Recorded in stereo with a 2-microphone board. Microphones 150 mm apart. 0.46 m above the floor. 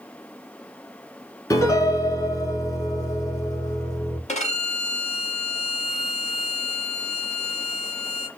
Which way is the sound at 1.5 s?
25° left (ahead or behind).